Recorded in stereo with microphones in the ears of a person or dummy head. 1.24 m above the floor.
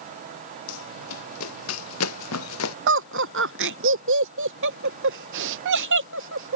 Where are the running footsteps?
80° left; by 2.8 s 85° left.